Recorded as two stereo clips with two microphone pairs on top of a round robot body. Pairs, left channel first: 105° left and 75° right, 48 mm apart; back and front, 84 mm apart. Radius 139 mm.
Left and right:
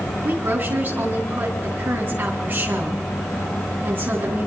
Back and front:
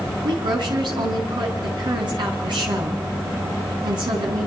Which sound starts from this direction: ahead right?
A woman speaking, at 0.2 s.